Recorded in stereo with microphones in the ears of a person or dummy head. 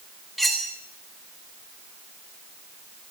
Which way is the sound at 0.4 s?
Centre (ahead or behind).